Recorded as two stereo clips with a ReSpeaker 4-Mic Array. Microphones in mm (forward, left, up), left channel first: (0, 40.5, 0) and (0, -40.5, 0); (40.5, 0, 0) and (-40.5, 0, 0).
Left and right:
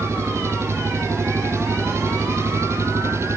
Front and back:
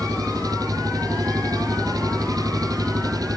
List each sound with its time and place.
0.0 s an engine running: 145° right